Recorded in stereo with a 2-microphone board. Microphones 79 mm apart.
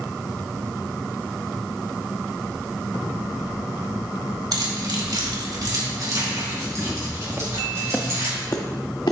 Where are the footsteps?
40° right (ahead or behind), 1.6 m; by 9.1 s 70° left (ahead or behind), 1.8 m.